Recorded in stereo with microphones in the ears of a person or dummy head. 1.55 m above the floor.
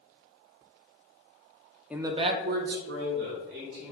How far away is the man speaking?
About 0.5 m.